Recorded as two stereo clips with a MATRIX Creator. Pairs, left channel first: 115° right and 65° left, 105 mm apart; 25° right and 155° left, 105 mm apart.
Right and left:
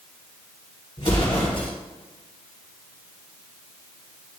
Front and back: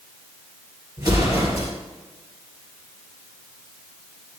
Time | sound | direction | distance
1.0 | an explosion | 145° right | 2.5 m